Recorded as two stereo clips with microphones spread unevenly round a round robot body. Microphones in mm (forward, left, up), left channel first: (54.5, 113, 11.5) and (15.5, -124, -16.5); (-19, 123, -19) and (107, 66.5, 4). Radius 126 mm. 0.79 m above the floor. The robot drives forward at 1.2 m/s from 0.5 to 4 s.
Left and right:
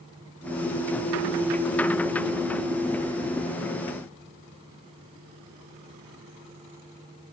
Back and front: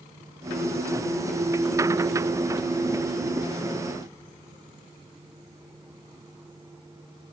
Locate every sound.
Only background noise.